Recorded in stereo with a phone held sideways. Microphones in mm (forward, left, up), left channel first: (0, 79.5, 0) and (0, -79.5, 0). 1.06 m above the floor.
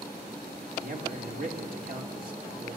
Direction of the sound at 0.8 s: 60° right (ahead or behind).